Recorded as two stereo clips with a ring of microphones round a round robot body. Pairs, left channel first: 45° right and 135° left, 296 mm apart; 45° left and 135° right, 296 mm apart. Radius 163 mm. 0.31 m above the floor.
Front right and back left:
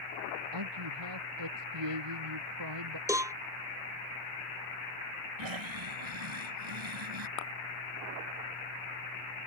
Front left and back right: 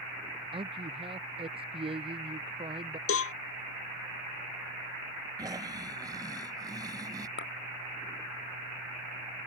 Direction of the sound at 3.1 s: 60° left.